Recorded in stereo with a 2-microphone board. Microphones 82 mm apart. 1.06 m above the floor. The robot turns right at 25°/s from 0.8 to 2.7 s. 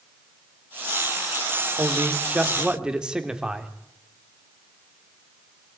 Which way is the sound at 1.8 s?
35° right (ahead or behind).